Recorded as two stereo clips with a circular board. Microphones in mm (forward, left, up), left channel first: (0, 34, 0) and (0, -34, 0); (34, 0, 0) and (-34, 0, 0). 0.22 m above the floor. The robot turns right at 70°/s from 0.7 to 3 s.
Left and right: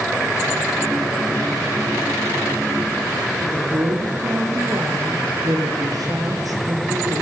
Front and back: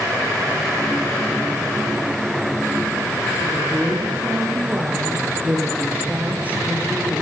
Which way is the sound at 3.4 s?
115° right.